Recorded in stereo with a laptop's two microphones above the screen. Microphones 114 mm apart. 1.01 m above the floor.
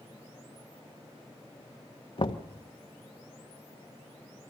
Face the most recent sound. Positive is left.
turn(degrees=50)  # may be behind; listen again after turning